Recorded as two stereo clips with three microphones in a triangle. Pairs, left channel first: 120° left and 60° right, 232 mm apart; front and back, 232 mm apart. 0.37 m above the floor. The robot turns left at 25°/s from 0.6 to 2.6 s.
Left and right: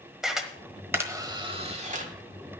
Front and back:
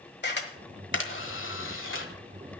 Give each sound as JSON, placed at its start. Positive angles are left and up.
{"t": 0.2, "sound": "a camera shutter", "azimuth_deg": 30, "distance_m": 1.2}